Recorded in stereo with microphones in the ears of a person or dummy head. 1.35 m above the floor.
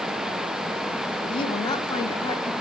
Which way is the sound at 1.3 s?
35° left (ahead or behind).